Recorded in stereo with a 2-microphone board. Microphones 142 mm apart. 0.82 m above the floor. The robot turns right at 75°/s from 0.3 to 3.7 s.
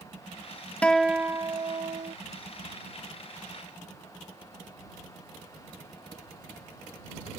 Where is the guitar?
170° left; by 2.1 s 90° right.